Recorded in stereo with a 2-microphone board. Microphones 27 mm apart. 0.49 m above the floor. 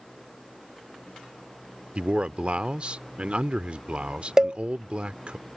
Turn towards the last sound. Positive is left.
turn(degrees=-25)  # may be behind; listen again after turning